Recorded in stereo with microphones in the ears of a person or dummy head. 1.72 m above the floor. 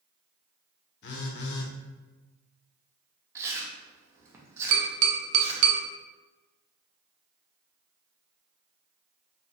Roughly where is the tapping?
Right.